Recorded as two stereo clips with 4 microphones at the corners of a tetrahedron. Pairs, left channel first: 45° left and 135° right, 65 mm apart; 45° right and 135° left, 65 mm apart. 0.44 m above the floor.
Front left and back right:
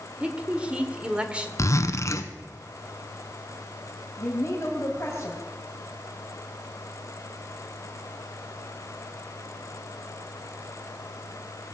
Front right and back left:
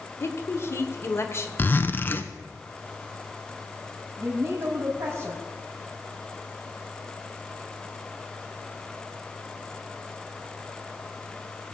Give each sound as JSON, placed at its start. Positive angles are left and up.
{"t": 0.2, "sound": "a woman speaking", "azimuth_deg": -70, "distance_m": 1.5}
{"t": 1.6, "sound": "a zipper", "azimuth_deg": 10, "distance_m": 0.9}
{"t": 4.2, "sound": "a woman speaking", "azimuth_deg": 95, "distance_m": 3.0}